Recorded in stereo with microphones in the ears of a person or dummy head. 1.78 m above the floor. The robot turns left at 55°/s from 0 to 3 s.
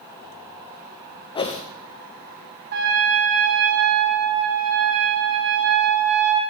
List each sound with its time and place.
1.4 s a whoosh: 25° left (ahead or behind), 0.8 m; by 1.6 s 40° left (ahead or behind), 0.8 m
2.7 s a trumpet: 50° right (ahead or behind), 1.1 m; by 6.4 s 55° right (ahead or behind), 1.1 m